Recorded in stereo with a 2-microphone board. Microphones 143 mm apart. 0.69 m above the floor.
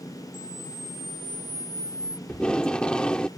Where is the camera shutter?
55° left (ahead or behind).